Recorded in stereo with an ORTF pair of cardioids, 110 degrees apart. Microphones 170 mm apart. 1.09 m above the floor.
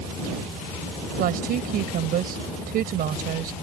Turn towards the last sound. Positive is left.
turn(degrees=-65)